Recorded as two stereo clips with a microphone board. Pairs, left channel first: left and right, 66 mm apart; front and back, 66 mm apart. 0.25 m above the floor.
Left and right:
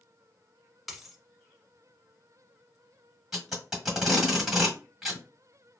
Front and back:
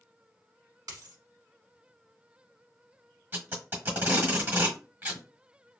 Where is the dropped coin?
Straight behind, 0.9 m.